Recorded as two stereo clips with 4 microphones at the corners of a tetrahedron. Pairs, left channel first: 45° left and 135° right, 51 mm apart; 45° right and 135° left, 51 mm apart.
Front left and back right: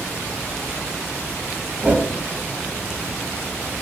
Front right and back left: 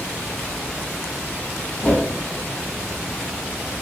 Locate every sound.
1.8 s a whoosh: 85° right, 0.6 m